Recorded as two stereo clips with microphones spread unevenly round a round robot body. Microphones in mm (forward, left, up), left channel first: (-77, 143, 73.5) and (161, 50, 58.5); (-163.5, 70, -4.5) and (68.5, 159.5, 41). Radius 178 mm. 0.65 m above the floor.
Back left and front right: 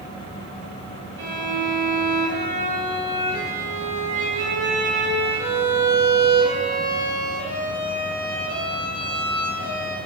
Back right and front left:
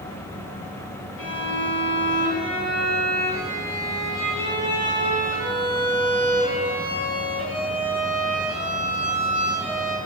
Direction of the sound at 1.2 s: 125° right.